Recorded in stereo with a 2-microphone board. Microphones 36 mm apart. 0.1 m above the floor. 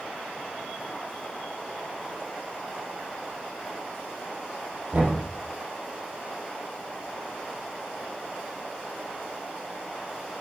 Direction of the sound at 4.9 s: 55° right (ahead or behind).